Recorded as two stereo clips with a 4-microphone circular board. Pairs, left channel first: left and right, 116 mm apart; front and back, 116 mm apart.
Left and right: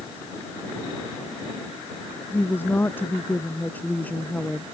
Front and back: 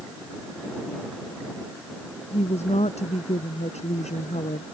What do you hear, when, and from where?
2.3 s a woman speaking: 20° left; by 4.7 s 10° left